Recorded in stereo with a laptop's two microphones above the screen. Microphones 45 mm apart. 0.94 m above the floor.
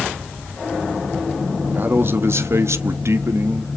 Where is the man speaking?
45° right (ahead or behind), 1.1 m; by 3.7 s 55° right (ahead or behind), 1.2 m.